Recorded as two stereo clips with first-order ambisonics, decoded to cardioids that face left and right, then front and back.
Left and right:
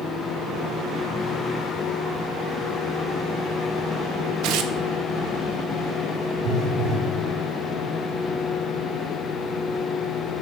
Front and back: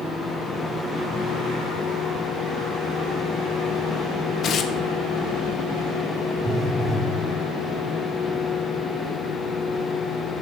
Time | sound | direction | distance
4.4 | tearing paper | 60° right | 0.8 m
6.4 | a phone buzzing | 100° right | 1.5 m